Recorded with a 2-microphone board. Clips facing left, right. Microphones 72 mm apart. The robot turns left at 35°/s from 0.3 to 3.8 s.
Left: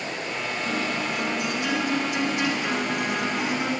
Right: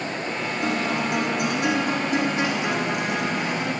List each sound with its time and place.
0.6 s a guitar: 90° right, 4 m; by 3.7 s 165° left, 4 m